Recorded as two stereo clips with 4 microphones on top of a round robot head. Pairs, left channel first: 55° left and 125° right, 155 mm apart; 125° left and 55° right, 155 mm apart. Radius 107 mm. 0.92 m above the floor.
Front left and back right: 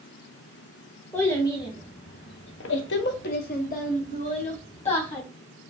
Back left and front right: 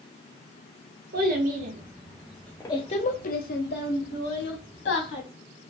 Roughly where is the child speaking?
Ahead right.